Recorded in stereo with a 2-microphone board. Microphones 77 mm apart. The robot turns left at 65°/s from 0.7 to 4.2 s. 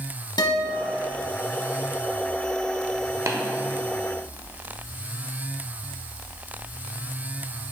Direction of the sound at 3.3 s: 40° right (ahead or behind).